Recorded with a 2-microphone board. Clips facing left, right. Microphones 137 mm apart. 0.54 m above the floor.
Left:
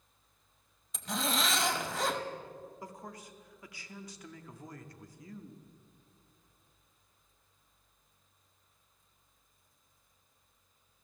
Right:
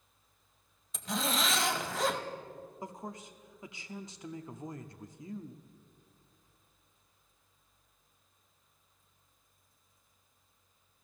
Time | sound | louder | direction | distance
0.9 | a zipper | even | centre (ahead or behind) | 1.1 m
2.8 | a man speaking | right 3 dB | 20° right (ahead or behind) | 0.6 m